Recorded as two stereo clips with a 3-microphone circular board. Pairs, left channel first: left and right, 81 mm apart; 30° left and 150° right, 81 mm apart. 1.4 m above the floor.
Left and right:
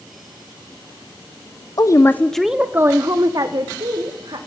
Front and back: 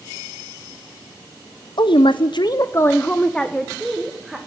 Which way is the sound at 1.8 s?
50° left.